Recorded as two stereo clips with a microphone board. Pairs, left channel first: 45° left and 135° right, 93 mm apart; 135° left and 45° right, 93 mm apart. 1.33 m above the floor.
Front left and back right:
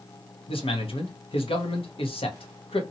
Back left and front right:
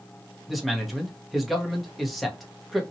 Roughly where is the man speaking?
Ahead left.